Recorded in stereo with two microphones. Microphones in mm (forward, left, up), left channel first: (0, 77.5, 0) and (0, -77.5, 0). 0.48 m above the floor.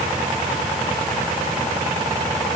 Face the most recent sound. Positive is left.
No sound to turn to.